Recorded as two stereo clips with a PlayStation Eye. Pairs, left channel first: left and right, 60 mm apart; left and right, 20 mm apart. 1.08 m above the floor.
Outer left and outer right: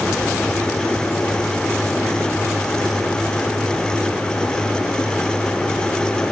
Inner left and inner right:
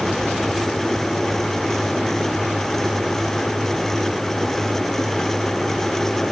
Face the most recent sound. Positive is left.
No sound to turn to.